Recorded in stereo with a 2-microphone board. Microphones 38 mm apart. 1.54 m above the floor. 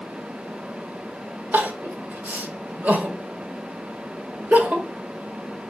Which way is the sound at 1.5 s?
40° right (ahead or behind).